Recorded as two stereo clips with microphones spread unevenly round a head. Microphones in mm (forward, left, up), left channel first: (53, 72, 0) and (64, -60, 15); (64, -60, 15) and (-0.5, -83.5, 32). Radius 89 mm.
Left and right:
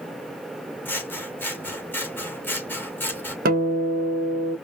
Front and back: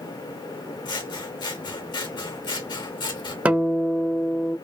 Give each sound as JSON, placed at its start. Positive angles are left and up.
{"t": 0.8, "sound": "scissors", "azimuth_deg": 15, "distance_m": 1.7}
{"t": 3.5, "sound": "a guitar", "azimuth_deg": -95, "distance_m": 1.1}